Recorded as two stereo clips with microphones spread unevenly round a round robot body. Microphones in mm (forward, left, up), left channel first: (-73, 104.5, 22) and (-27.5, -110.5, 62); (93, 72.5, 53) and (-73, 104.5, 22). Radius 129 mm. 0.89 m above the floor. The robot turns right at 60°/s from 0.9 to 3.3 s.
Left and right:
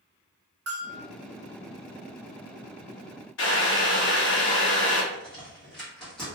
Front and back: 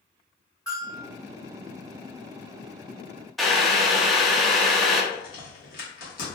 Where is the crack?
20° left, 1.3 m.